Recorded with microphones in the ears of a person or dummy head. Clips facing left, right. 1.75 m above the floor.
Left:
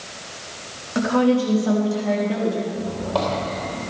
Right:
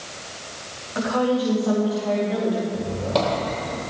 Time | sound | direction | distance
0.9 | a woman speaking | 35° left (ahead or behind) | 4 m
2.7 | a squeak | 25° right (ahead or behind) | 3 m